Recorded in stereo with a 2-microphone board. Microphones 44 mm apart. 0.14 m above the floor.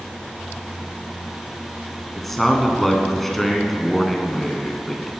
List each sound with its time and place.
2.2 s a man speaking: 5° left (ahead or behind), 1.1 m